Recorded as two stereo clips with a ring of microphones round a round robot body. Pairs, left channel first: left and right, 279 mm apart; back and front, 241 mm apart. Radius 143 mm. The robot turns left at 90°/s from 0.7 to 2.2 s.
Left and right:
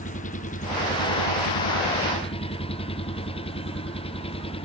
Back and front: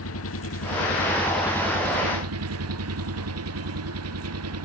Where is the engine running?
155° left; by 4.7 s 20° left.